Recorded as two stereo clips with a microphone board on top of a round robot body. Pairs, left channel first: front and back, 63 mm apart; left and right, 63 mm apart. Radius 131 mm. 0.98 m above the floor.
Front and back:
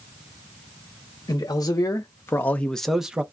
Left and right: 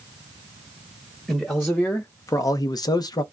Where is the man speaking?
15° left, 0.8 m; by 3.2 s 105° left, 0.6 m.